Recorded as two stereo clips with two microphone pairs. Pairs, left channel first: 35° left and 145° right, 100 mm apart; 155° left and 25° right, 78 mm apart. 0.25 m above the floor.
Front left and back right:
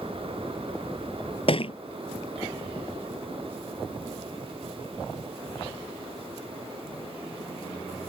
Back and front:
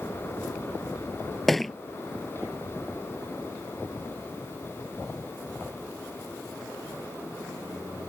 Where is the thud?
65° left.